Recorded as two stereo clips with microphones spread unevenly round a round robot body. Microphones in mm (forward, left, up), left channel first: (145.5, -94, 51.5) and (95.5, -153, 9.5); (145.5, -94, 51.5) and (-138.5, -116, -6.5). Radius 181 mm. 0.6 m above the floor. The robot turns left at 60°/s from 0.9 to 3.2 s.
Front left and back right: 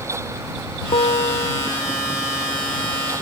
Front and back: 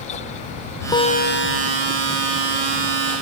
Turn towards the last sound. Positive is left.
turn(degrees=-55)